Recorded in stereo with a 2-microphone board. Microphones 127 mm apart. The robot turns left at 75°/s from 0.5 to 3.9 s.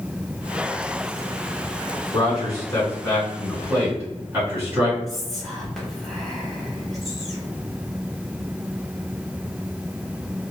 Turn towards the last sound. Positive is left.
turn(degrees=0)  # may be behind; listen again after turning